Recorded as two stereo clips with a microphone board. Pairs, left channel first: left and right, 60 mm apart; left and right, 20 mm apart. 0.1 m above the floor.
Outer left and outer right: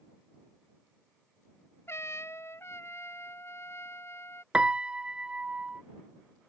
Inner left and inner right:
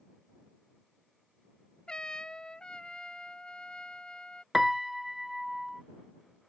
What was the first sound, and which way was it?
A trumpet, 50° left (ahead or behind).